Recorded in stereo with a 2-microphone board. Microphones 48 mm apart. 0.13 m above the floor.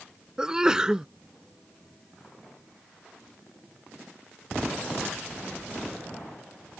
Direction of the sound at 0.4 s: 15° right (ahead or behind).